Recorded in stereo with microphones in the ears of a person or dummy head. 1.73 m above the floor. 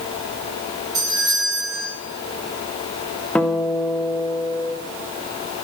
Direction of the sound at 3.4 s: 5° left (ahead or behind).